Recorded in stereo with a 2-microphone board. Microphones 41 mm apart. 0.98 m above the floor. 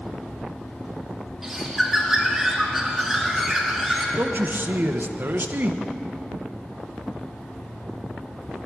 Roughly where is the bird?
Centre.